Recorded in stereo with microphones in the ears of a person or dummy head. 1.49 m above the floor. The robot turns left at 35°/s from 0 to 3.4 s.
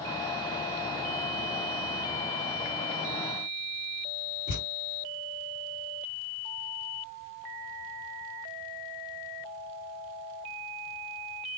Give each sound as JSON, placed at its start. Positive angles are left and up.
{"t": 4.5, "sound": "a thud", "side_deg": -50, "distance_m": 2.0}